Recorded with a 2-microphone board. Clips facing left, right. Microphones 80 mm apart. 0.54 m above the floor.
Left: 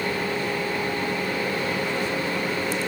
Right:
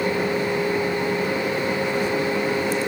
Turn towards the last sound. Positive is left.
No sound to turn to.